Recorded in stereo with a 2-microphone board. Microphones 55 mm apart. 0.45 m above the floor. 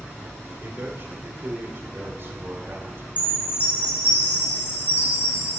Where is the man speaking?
45° right (ahead or behind), 1.4 m.